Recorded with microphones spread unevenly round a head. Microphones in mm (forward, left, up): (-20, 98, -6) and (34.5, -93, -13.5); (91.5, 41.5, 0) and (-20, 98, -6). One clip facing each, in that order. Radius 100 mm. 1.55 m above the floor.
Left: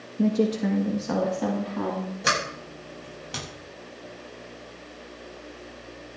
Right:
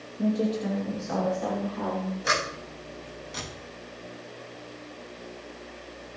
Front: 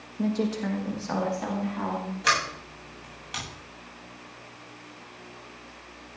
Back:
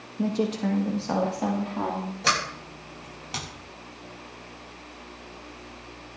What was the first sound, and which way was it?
A woman speaking, 75° left.